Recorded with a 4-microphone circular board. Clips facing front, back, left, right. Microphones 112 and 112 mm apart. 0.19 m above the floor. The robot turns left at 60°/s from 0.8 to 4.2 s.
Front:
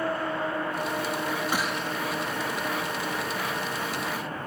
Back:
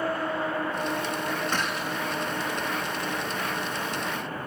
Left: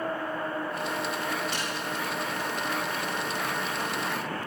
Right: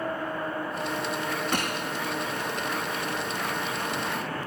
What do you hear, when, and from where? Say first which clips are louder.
1.5 s a gunshot: even, right 3 dB; 80° right, 2.0 m; by 2.0 s 110° right, 2.0 m